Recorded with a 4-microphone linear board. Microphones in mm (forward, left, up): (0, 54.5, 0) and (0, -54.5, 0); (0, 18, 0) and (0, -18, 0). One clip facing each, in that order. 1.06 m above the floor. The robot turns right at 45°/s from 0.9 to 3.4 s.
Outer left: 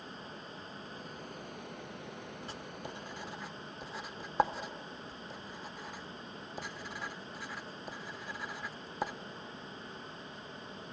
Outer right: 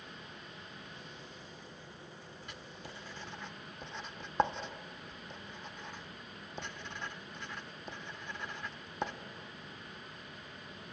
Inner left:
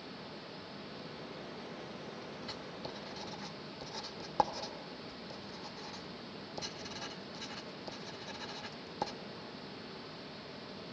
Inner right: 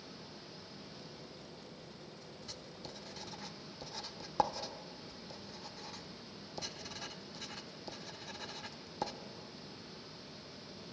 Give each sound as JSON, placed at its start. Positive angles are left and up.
{"t": 0.0, "sound": "running water", "azimuth_deg": 35, "distance_m": 1.2}
{"t": 2.5, "sound": "writing", "side_deg": 30, "distance_m": 0.8}